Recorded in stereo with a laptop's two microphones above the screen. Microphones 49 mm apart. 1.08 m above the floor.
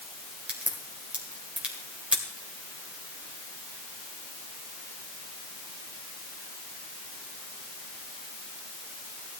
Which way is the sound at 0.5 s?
25° right (ahead or behind).